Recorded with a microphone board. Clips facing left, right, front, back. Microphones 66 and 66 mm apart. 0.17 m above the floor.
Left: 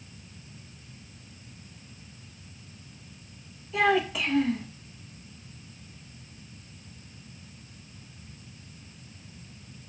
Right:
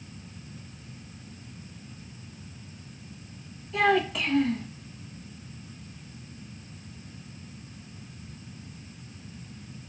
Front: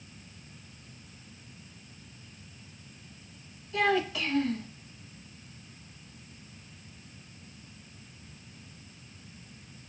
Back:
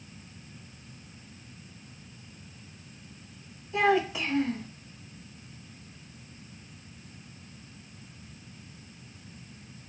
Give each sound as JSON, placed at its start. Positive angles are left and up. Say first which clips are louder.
{"t": 3.7, "sound": "a child speaking", "louder": "right 1 dB, back 3 dB", "azimuth_deg": 175, "distance_m": 0.6}